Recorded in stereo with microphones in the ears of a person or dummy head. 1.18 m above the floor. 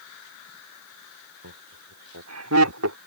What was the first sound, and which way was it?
Laughter, 85° right.